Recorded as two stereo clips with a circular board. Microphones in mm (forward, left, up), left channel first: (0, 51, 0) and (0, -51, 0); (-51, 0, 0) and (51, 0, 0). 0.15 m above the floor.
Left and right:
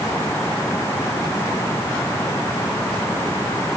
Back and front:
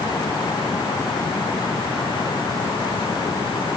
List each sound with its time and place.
Only background noise.